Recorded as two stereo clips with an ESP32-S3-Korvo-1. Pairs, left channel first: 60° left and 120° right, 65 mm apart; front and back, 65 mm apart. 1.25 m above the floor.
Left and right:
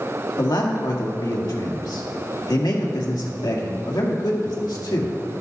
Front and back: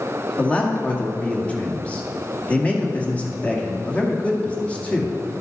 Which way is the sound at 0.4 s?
70° left.